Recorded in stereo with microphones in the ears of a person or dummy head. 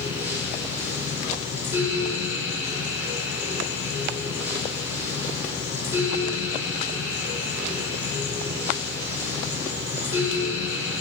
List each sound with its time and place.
0.0 s a fan: 15° right (ahead or behind), 3.5 m